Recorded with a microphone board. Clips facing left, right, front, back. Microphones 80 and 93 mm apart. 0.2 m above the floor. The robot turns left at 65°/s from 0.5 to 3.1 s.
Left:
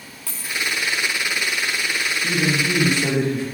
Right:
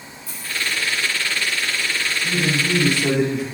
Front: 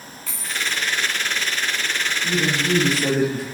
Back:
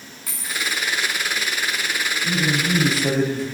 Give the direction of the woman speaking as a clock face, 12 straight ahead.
9 o'clock.